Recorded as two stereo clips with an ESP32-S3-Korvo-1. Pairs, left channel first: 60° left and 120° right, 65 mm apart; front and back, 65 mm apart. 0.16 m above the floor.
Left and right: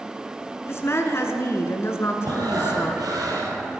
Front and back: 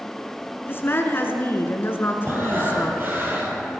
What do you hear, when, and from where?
0.7 s a woman speaking: 40° left, 1.5 m
2.2 s breathing: 125° right, 2 m